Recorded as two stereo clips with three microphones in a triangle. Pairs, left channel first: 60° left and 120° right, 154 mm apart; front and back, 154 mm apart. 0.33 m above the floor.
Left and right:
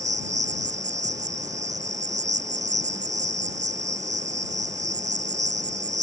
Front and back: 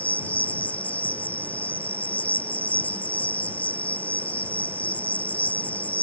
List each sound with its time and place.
0.0 s an insect: 80° right